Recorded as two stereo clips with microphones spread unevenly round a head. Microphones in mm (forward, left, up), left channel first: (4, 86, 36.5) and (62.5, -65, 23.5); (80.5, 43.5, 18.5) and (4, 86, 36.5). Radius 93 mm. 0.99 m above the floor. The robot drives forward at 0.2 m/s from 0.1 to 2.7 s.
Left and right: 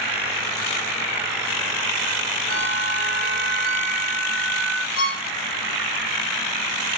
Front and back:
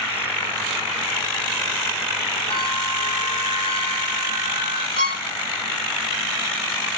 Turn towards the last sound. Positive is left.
turn(degrees=155)